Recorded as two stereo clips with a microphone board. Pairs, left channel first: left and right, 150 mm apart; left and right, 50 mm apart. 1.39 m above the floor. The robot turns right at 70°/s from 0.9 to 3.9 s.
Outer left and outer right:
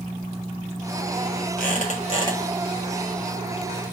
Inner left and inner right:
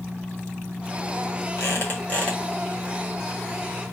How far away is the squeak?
About 1.5 m.